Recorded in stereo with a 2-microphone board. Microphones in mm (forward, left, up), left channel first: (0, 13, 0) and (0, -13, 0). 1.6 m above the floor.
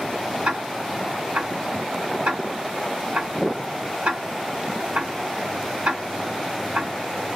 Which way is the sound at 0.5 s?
65° right (ahead or behind).